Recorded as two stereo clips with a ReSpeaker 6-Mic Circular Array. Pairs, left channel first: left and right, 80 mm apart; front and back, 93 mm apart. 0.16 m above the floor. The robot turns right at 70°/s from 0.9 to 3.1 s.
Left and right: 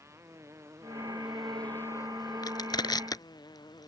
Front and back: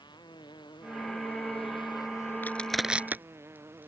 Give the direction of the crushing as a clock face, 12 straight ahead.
10 o'clock.